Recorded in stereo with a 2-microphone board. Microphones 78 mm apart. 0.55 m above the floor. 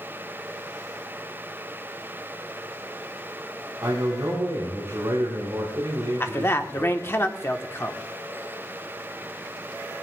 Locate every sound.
3.8 s a man speaking: 40° right (ahead or behind), 4.5 m
6.2 s a man speaking: 30° left (ahead or behind), 1.2 m